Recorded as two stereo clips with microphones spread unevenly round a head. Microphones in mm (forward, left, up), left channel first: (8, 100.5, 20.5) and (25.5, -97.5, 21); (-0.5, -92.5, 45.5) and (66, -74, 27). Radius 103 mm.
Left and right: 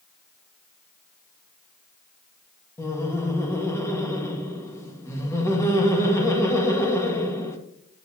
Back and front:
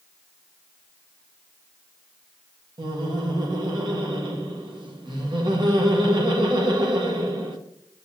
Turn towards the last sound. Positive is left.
turn(degrees=20)